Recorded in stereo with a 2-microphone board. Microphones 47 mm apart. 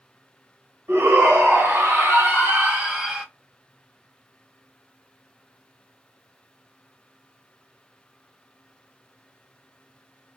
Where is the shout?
65° right (ahead or behind), 3 m; by 3.2 s 10° right (ahead or behind), 1.3 m.